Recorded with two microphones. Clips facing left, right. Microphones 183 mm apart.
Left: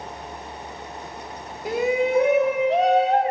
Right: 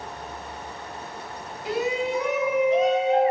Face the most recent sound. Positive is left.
turn(degrees=75)  # may be behind; listen again after turning